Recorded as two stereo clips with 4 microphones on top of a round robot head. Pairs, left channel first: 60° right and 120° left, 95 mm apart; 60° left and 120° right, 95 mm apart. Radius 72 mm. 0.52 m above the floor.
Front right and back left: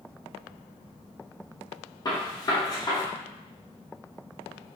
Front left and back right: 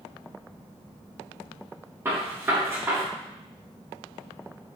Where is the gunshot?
65° right, 1.2 m.